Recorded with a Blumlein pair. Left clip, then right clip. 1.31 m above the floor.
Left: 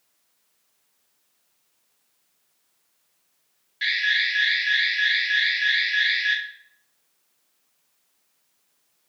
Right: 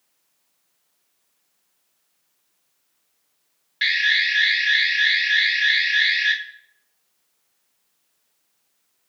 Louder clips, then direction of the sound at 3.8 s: Right 3 dB; 65° right.